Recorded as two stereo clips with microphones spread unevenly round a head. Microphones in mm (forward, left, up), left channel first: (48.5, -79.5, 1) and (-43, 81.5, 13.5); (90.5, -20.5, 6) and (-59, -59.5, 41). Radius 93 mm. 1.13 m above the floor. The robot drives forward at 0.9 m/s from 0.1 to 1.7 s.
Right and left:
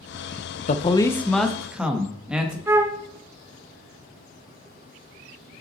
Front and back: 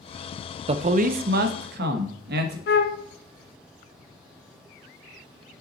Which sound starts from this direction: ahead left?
A flute, at 2.7 s.